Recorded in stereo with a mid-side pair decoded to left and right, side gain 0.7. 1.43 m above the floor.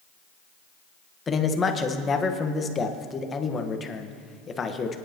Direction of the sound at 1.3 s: 25° left.